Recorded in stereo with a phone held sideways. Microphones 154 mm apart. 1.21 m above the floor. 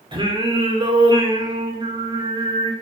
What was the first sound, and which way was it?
Singing, 30° right (ahead or behind).